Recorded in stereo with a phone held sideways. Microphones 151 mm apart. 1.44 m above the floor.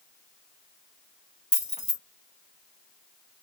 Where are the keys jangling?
50° left (ahead or behind), 1.5 m.